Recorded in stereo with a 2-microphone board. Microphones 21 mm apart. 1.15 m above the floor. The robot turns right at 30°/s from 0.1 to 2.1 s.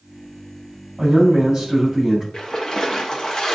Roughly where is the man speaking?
Ahead right.